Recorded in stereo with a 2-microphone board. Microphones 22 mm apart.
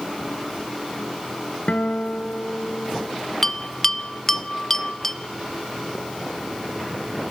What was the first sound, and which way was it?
A guitar, 75° left (ahead or behind).